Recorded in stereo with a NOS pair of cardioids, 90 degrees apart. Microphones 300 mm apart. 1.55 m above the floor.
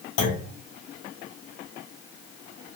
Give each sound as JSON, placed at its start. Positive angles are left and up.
{"t": 0.2, "sound": "a clunk", "azimuth_deg": 55, "distance_m": 1.3}